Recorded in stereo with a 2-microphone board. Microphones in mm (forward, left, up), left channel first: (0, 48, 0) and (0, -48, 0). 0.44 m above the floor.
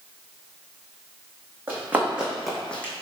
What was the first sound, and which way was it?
Running footsteps, 20° right (ahead or behind).